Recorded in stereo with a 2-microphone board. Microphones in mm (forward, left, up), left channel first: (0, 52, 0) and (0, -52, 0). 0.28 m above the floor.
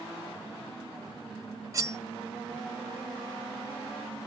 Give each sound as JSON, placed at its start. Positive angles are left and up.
{"t": 1.7, "sound": "cutlery clinking", "side_deg": -30, "distance_m": 0.6}